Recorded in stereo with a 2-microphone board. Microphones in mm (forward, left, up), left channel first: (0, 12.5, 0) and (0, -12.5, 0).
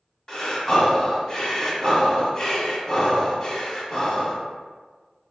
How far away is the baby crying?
No baby crying in this recording.